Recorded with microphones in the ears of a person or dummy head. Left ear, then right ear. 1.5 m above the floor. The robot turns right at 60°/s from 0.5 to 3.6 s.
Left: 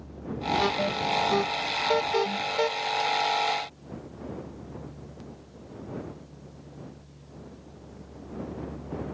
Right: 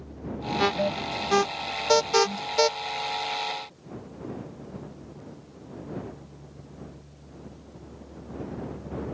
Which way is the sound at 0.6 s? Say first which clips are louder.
Right 3 dB; 15° right (ahead or behind).